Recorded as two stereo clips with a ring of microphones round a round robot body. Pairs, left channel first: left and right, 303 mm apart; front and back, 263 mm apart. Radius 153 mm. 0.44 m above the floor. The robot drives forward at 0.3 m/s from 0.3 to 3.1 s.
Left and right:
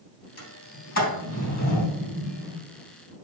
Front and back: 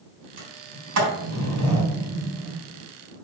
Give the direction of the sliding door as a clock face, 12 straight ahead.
7 o'clock.